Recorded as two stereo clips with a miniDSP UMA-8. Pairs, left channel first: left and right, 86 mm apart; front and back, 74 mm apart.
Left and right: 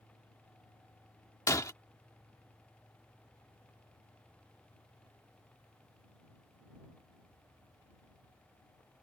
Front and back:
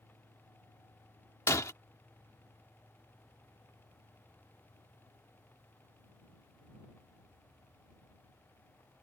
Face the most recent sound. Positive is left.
turn(degrees=45)